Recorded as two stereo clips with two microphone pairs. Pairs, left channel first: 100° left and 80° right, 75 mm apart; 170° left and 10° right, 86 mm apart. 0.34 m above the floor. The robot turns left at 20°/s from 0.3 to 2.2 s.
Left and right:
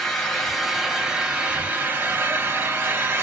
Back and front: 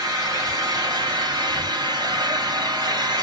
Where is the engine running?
15° left, 0.9 m; by 3.2 s 25° right, 0.9 m.